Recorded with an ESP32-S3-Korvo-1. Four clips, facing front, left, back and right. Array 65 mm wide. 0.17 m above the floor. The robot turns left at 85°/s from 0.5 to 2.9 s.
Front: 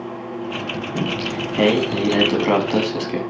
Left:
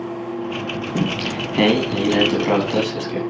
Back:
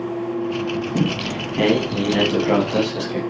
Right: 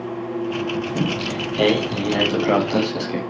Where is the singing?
145° left, 4.5 m; by 3.2 s 20° right, 4.5 m.